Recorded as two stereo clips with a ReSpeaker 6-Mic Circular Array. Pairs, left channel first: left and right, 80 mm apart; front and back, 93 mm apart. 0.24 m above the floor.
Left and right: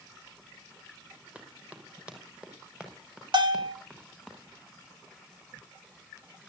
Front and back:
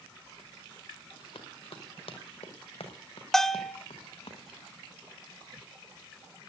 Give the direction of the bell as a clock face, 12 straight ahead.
3 o'clock.